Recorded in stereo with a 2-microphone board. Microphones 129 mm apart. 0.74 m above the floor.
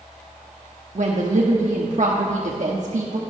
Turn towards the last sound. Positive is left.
turn(degrees=-65)  # may be behind; listen again after turning